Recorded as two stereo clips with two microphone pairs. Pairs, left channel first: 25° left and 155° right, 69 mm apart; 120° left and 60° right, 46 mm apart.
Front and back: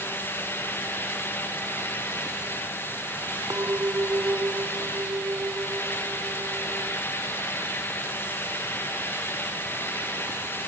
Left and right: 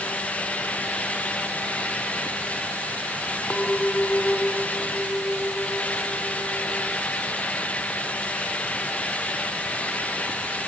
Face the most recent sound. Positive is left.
turn(degrees=180)